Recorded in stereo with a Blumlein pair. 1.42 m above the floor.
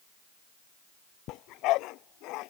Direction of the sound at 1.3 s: 40° left.